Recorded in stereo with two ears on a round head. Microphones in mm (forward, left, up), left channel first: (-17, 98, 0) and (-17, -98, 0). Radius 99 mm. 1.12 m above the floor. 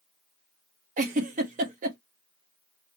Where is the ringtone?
I don't hear a ringtone.